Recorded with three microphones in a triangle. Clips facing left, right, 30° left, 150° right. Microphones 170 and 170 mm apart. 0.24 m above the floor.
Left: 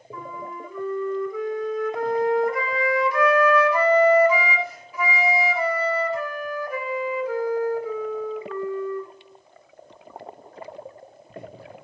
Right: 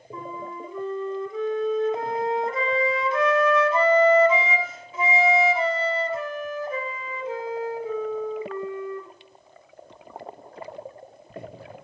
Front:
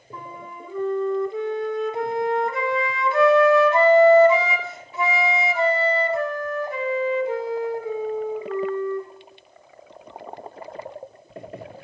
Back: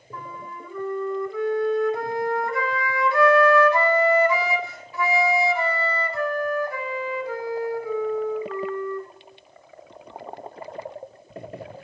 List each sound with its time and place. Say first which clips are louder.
0.1 s a flute: right 1 dB, even; 35° right, 0.8 m